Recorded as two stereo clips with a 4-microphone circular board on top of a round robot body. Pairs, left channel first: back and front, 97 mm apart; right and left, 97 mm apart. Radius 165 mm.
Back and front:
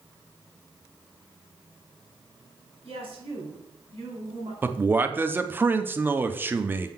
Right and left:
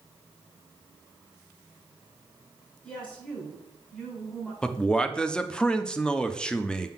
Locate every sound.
2.8 s a woman speaking: 10° right, 3.5 m
4.6 s a man speaking: 20° right, 0.8 m